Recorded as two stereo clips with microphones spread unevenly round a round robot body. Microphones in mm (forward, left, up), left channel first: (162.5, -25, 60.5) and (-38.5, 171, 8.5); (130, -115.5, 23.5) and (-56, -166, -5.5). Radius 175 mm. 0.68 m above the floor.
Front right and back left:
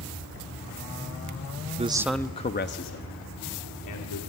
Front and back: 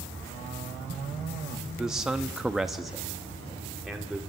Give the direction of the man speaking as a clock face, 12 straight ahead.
8 o'clock.